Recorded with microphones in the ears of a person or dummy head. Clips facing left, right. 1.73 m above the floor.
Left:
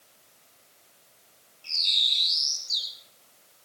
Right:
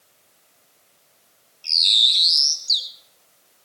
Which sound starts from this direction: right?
A bird, at 1.6 s.